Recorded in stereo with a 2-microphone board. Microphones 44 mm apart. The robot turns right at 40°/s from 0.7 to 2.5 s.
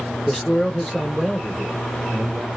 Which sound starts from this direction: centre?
A man speaking, at 0.3 s.